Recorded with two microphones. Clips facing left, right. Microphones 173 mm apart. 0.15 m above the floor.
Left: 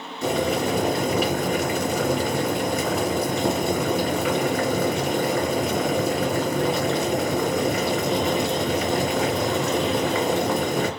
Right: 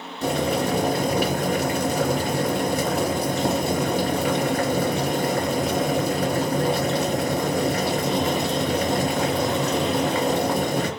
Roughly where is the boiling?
Right.